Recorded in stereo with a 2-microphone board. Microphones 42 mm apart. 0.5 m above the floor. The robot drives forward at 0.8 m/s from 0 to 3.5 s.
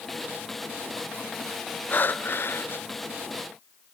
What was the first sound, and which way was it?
Breathing, 45° left (ahead or behind).